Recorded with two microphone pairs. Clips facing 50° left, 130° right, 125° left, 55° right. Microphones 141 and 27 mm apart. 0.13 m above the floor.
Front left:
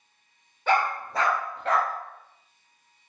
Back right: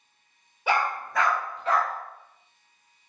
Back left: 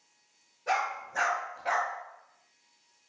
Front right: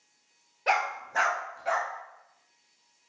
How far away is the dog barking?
About 0.8 m.